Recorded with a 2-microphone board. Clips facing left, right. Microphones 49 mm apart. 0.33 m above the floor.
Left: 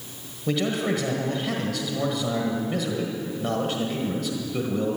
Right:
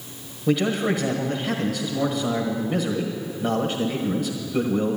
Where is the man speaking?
5° right (ahead or behind), 1.3 m.